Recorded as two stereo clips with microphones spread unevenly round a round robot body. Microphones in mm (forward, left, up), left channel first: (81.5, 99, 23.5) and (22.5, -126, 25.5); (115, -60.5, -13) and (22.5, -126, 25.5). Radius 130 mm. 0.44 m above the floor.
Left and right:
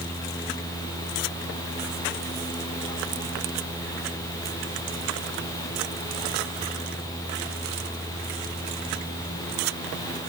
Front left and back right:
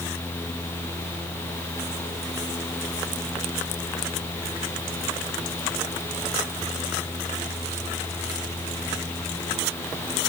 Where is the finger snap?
No finger snap in this recording.